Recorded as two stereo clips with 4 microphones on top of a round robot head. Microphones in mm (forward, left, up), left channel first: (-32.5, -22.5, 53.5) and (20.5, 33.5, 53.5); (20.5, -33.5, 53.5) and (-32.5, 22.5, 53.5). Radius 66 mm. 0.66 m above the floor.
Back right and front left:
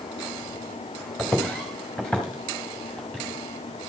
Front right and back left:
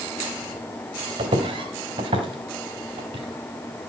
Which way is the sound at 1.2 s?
145° left.